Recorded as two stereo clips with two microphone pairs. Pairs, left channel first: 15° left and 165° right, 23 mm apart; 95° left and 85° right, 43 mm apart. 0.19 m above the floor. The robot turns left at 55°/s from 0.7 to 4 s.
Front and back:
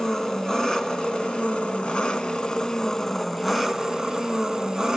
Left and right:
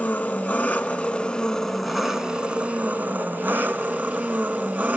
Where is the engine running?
70° left, 1.0 m; by 5.0 s 110° right, 1.0 m.